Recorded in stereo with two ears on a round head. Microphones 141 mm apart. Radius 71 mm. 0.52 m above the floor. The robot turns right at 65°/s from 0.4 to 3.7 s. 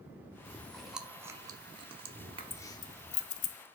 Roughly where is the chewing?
Centre.